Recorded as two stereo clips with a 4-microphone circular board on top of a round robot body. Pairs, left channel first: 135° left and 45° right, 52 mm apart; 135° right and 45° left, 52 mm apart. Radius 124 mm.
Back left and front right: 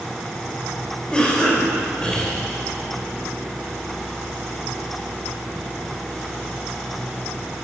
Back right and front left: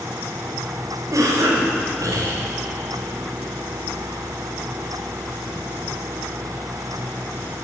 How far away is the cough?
About 5.5 m.